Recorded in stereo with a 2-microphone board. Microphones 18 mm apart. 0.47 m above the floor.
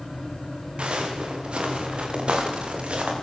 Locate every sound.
0.8 s footsteps: 60° right (ahead or behind), 8.5 m; by 3.1 s 65° right (ahead or behind), 9.5 m